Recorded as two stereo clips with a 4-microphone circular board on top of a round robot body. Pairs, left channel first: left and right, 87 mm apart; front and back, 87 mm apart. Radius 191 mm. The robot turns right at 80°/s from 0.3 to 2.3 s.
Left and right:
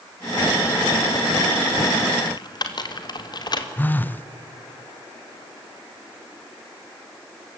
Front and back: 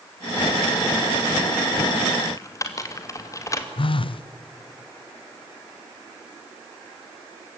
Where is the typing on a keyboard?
50° left, 2.5 m; by 3.7 s 55° left, 2.5 m.